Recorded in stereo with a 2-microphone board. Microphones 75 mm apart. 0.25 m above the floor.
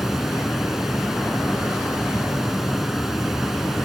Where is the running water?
5° right (ahead or behind), 2.5 m.